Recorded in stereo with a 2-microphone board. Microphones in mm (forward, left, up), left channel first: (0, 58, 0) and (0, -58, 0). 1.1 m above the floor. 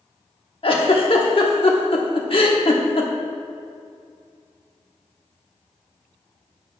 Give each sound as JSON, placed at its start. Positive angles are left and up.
{"t": 0.6, "sound": "a giggle", "side_deg": 50, "distance_m": 1.1}